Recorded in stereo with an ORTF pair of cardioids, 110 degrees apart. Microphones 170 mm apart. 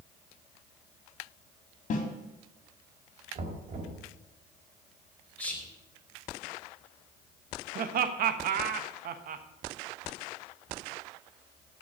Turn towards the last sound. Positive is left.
turn(degrees=-65)